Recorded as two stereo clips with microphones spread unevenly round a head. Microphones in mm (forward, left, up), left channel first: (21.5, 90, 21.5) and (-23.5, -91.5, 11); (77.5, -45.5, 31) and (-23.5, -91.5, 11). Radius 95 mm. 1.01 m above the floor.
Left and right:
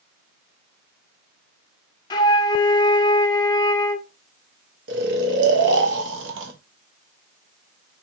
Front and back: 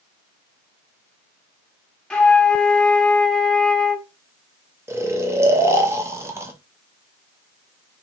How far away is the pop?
I don't hear a pop.